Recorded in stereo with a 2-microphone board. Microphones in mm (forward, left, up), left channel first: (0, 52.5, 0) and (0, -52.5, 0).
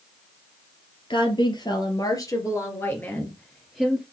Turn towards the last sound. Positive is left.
turn(degrees=-5)  # may be behind; listen again after turning